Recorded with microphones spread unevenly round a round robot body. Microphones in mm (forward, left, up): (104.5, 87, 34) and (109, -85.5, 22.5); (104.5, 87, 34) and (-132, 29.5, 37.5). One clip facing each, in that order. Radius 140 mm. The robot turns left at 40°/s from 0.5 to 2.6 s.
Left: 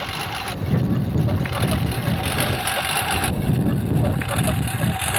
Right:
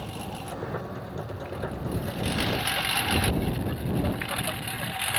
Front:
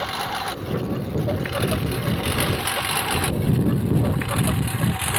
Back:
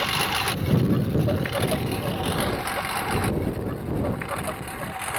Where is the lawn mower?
140° left; by 5.2 s 55° left.